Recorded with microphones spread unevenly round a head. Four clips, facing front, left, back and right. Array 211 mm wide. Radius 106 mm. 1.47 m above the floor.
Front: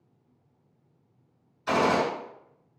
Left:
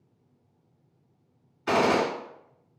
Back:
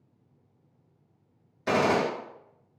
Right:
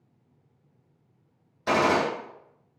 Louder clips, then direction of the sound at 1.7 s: Even, even; 140° right.